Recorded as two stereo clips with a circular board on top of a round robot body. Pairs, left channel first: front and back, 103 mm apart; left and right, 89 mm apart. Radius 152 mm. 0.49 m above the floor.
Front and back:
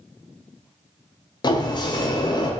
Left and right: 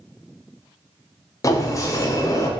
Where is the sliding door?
40° left, 0.5 m.